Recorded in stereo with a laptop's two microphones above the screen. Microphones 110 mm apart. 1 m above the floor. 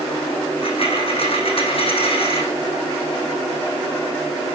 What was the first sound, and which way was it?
A dropped coin, 55° left (ahead or behind).